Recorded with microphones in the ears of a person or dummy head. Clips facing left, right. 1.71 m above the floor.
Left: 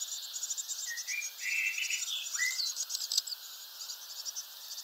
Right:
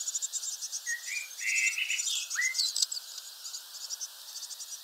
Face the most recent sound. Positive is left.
turn(degrees=-20)  # may be behind; listen again after turning